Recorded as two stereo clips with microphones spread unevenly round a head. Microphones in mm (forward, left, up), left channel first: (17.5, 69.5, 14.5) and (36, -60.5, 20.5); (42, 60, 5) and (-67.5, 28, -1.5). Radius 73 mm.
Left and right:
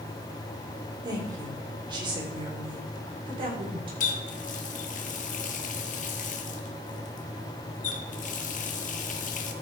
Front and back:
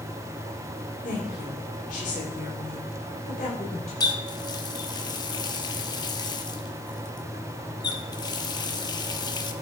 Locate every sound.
1.0 s a woman speaking: 20° right, 3 m; by 3.9 s 30° right, 5 m
4.0 s a running tap: 70° left, 1.2 m